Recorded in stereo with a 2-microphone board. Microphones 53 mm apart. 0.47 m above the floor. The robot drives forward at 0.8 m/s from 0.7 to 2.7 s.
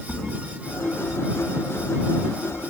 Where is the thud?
40° left (ahead or behind), 2 m.